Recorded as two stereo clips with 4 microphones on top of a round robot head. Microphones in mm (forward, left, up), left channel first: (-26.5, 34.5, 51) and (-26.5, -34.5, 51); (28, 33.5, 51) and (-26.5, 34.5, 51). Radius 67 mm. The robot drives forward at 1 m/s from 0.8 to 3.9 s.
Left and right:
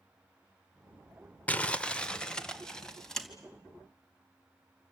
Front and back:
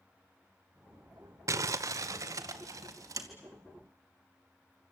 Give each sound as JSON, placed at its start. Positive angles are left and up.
{"t": 1.5, "sound": "crumpling", "azimuth_deg": 160, "distance_m": 1.1}